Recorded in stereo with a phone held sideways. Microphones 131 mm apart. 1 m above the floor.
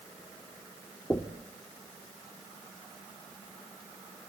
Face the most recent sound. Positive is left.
turn(degrees=10)  # may be behind; listen again after turning